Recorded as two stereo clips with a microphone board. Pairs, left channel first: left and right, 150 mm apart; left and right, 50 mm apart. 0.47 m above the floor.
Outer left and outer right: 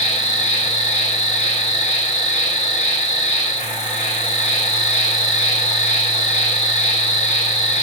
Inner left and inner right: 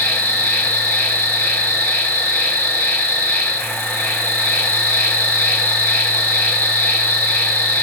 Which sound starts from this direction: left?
An insect, at 0.0 s.